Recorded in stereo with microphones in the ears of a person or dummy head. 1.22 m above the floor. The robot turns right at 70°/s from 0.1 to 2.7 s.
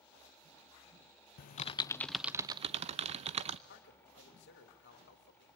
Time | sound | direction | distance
1.4 | typing on a keyboard | 125° left | 0.5 m
3.7 | a man speaking | 65° left (ahead or behind) | 3 m